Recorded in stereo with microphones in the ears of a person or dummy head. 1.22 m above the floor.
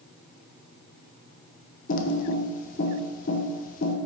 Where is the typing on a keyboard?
45° left (ahead or behind), 0.9 m.